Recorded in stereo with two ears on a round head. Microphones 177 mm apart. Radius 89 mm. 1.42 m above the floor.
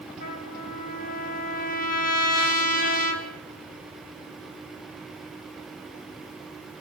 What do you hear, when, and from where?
0.2 s a trumpet: 45° left (ahead or behind), 1.6 m